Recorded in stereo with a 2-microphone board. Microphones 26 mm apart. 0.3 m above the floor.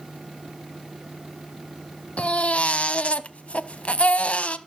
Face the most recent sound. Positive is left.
turn(degrees=55)  # may be behind; listen again after turning